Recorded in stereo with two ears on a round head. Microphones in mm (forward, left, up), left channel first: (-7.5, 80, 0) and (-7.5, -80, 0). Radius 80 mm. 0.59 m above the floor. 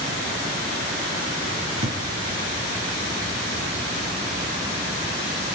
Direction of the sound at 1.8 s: 35° right (ahead or behind).